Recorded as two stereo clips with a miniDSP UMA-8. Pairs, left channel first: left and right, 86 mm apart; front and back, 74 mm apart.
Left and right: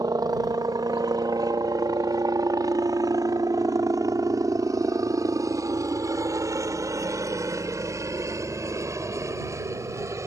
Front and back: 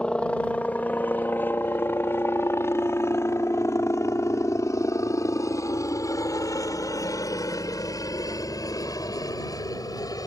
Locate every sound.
0.0 s a helicopter: 75° right; by 10.3 s 35° right